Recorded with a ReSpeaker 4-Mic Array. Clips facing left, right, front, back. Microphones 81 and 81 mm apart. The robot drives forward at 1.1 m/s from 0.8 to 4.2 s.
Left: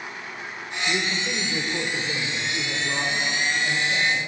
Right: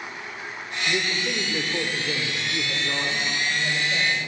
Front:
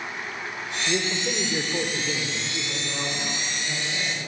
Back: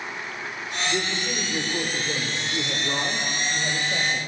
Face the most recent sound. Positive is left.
turn(degrees=-170)